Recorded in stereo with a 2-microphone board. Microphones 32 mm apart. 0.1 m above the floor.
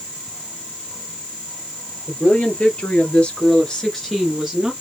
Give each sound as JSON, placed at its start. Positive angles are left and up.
{"t": 2.1, "sound": "a woman speaking", "side_deg": 50, "distance_m": 3.0}